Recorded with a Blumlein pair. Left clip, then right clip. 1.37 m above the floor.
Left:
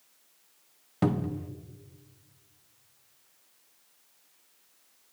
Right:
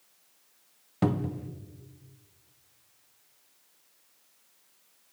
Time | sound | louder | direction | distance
1.0 | a cupboard door | even | straight ahead | 0.5 m